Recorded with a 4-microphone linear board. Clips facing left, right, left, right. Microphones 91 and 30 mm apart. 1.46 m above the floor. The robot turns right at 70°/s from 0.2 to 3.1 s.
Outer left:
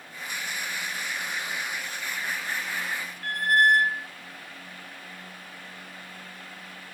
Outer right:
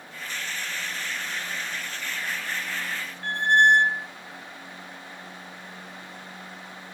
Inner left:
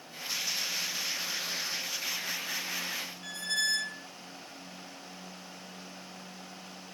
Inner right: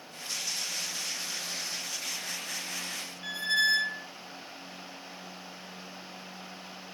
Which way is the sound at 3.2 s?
25° right (ahead or behind).